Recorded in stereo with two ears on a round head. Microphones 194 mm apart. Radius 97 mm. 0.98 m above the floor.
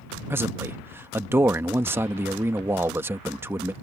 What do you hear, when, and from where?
0.3 s a man speaking: 10° right (ahead or behind)